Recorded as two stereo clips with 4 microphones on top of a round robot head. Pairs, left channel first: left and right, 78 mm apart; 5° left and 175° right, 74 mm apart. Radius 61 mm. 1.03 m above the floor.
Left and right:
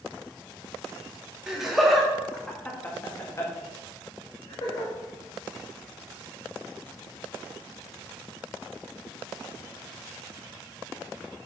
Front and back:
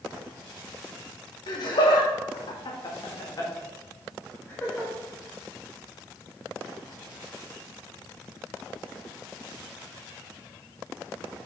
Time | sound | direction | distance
1.5 | laughter | 5° right | 2.5 m